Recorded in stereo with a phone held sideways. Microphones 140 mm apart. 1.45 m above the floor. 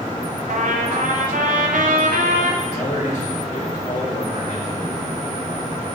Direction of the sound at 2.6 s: 60° left (ahead or behind).